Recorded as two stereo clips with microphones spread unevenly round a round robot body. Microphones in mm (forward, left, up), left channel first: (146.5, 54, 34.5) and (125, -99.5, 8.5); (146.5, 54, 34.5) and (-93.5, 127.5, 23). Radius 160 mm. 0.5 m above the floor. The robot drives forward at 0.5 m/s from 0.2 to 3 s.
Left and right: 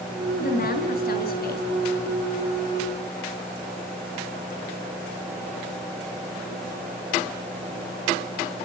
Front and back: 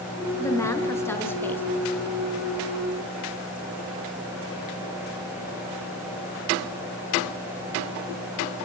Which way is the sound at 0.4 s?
60° left.